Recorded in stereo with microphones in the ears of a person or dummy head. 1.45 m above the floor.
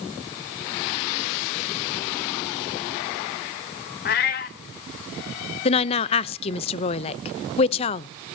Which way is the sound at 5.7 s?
35° left (ahead or behind).